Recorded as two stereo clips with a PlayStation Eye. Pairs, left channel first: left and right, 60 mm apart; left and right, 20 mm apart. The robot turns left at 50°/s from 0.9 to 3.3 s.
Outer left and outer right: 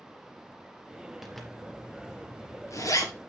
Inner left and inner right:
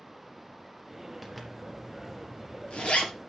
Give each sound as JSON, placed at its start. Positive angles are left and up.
{"t": 1.2, "sound": "a zipper", "side_deg": -5, "distance_m": 3.0}